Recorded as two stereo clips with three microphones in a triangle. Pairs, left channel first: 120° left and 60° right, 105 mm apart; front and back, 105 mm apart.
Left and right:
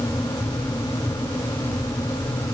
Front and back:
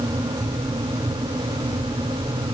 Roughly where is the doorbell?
I don't hear a doorbell.